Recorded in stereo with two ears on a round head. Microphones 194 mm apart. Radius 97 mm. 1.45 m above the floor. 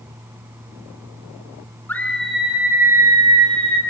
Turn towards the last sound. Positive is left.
turn(degrees=-25)  # may be behind; listen again after turning